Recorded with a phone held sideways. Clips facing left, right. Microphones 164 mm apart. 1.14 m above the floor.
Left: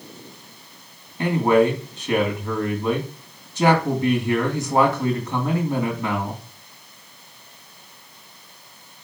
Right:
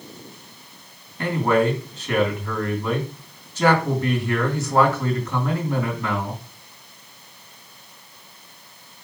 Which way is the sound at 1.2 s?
15° left (ahead or behind).